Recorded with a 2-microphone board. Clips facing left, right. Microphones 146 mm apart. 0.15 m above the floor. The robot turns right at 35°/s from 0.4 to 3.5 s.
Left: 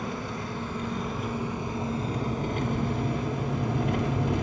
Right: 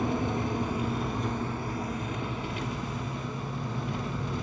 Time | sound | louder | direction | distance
0.0 | an engine running | right 5 dB | 25° right | 1.7 m